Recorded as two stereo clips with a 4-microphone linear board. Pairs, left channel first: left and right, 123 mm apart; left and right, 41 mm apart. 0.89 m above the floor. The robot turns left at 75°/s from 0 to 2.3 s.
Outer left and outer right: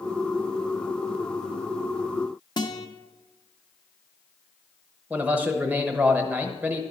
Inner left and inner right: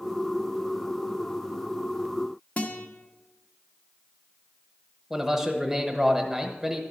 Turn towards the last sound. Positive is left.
turn(degrees=-15)  # may be behind; listen again after turning